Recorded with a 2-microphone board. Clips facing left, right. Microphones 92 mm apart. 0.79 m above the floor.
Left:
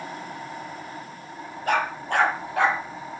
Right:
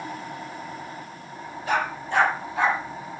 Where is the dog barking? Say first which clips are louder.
Left 1 dB; 55° left (ahead or behind), 6.5 m; by 2.8 s 65° left (ahead or behind), 5.5 m.